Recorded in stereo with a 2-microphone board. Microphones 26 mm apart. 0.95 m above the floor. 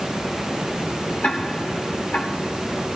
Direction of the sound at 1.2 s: 75° left (ahead or behind).